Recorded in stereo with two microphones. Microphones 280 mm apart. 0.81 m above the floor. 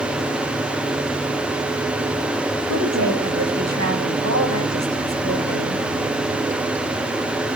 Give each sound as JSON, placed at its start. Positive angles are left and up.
{"t": 2.7, "sound": "a woman speaking", "side_deg": -65, "distance_m": 7.5}